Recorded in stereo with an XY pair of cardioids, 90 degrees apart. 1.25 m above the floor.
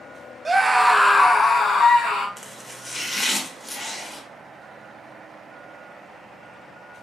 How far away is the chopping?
About 1.2 m.